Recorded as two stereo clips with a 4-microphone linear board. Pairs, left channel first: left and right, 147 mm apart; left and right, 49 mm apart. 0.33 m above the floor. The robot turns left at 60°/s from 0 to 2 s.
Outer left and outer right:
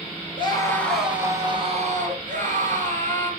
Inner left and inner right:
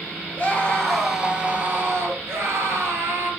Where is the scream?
35° left, 5 m; by 3.3 s 60° right, 5 m.